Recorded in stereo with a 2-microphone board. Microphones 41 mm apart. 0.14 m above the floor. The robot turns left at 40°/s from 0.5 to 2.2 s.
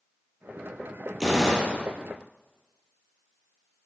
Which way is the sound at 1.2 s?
Centre (ahead or behind).